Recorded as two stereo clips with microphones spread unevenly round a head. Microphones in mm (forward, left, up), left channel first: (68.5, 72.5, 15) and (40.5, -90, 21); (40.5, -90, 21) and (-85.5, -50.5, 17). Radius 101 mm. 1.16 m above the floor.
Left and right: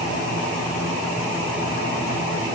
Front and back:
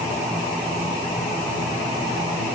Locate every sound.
Only background noise.